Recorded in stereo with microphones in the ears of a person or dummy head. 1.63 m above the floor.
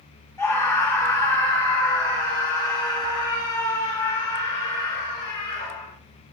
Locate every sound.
0.4 s a scream: 15° left (ahead or behind), 2.5 m; by 5.9 s 30° left (ahead or behind), 6 m